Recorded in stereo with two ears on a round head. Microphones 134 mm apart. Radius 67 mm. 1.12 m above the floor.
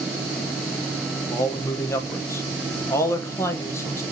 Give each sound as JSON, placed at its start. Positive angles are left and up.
{"t": 1.3, "sound": "a man speaking", "side_deg": 20, "distance_m": 0.9}